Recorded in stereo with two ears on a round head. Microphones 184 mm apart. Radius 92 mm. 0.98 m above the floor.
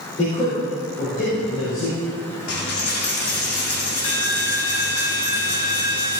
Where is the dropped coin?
75° left (ahead or behind), 2.5 m.